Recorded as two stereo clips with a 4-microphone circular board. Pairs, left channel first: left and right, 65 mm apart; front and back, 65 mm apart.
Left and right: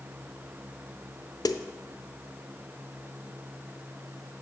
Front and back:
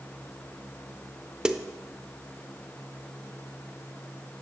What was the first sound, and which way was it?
A snare drum, 100° left.